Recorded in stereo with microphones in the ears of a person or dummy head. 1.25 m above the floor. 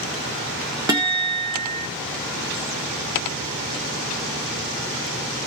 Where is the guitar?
15° right (ahead or behind), 0.9 m.